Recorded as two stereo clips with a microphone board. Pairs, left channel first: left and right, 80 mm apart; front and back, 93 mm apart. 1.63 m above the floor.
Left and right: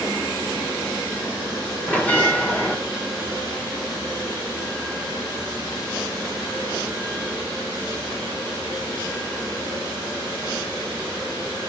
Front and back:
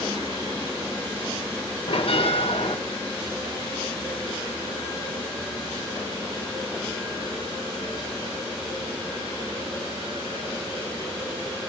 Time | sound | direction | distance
1.9 | a bell | 20° left | 1.6 m